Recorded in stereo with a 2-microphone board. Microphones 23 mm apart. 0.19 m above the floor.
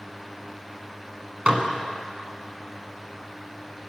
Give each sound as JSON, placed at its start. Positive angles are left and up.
{"t": 1.5, "sound": "dishes clattering", "side_deg": -45, "distance_m": 1.3}